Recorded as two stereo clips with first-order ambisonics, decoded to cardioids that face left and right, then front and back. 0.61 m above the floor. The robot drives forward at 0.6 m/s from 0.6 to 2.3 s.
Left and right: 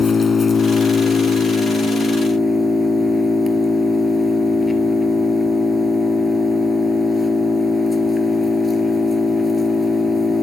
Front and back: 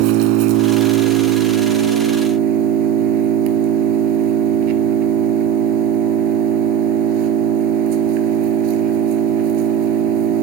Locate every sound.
0.0 s an engine running: 165° left, 1.3 m; by 10.4 s 170° left, 2.5 m